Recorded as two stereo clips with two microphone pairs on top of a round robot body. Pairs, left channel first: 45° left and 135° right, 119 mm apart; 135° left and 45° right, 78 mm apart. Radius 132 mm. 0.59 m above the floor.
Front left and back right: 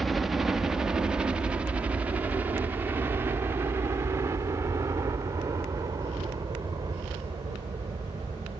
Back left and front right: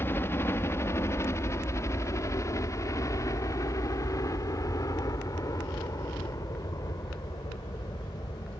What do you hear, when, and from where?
0.0 s a helicopter: 150° left; by 8.6 s 170° left